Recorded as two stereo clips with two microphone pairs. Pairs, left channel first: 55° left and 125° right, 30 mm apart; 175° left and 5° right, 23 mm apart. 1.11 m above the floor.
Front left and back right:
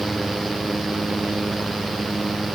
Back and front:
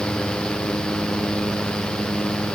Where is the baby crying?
No baby crying in this recording.